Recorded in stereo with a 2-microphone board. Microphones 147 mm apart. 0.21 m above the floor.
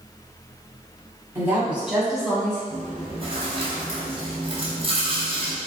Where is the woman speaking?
20° right (ahead or behind), 1.2 m; by 2.6 s 5° left (ahead or behind), 1.7 m.